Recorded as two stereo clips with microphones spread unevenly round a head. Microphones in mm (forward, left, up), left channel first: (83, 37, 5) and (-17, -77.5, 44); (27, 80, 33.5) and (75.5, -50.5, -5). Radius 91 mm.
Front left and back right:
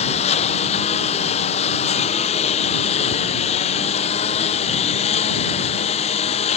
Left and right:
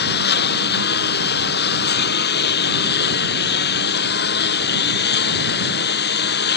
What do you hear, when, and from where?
0.0 s a lawn mower: 105° left; by 6.6 s 110° left